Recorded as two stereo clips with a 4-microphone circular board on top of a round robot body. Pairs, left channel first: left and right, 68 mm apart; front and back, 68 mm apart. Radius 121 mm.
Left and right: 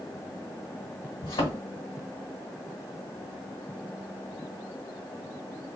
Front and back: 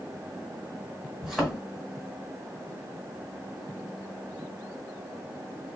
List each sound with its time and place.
1.2 s a thud: 95° left, 1.3 m